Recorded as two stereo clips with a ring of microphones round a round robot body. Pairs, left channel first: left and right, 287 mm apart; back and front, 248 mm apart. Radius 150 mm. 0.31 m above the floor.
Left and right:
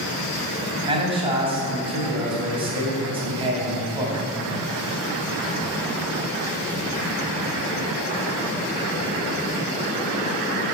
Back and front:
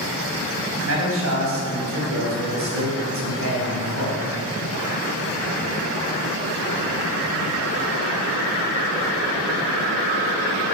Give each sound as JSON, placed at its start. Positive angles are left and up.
{"t": 0.9, "sound": "a man speaking", "azimuth_deg": -20, "distance_m": 3.0}